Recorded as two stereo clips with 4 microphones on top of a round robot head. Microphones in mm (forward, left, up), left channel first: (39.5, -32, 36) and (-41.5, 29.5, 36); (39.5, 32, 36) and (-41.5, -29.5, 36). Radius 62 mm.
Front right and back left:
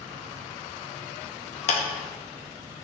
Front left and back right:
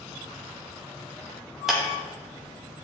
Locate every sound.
1.7 s a clap: 55° right, 1.2 m